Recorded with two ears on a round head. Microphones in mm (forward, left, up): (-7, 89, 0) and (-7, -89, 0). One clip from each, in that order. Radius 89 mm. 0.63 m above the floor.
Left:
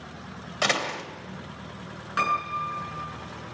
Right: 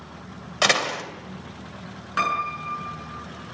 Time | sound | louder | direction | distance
0.6 | a door slam | right 5 dB | 20° right (ahead or behind) | 2.5 m
2.2 | a piano | right 1 dB | centre (ahead or behind) | 7 m